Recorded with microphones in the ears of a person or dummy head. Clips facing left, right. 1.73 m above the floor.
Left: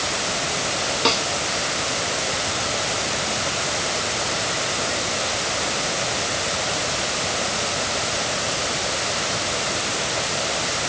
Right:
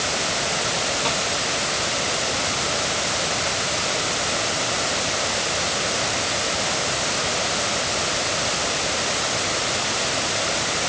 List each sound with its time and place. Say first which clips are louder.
1.1 s a snare drum: left 3 dB; 65° left (ahead or behind)